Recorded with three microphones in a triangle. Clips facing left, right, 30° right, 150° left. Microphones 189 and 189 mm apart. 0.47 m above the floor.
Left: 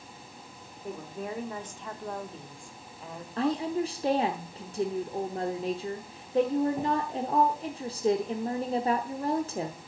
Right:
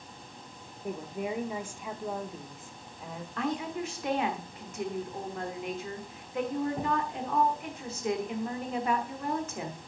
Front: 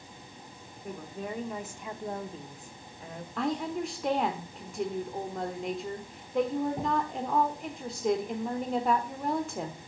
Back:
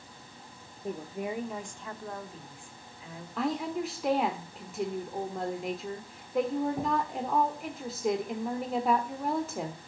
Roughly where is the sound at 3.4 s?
Ahead left.